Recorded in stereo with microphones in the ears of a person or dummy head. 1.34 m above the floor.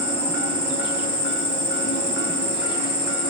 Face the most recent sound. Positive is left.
turn(degrees=35)  # may be behind; listen again after turning